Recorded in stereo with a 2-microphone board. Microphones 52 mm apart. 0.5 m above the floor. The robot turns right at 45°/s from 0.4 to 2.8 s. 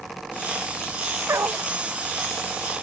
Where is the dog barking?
65° right (ahead or behind); by 1.7 s 45° right (ahead or behind).